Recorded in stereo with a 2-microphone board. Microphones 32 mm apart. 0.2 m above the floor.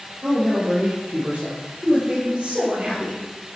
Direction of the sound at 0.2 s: 50° right (ahead or behind).